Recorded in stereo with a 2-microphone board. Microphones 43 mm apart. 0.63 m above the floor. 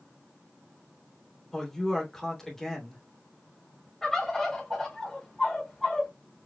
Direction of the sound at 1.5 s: 10° left (ahead or behind).